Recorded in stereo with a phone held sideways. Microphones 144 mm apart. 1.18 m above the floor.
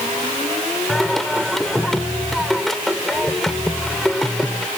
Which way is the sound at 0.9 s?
Centre (ahead or behind).